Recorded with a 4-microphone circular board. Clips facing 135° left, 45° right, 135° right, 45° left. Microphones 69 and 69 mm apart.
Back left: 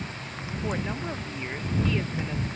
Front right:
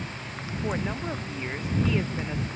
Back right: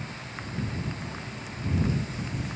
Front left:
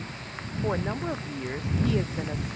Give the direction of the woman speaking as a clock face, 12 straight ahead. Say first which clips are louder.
Front right 1 dB, front left 7 dB; 11 o'clock.